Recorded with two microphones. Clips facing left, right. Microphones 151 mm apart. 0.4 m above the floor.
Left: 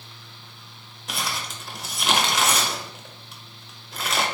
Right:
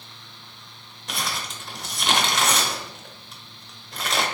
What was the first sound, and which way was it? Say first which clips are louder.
Crumpling: even; centre (ahead or behind).